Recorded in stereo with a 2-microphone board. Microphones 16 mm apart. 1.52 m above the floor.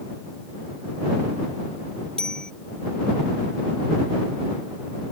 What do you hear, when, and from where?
2.2 s a bicycle bell: 65° left (ahead or behind)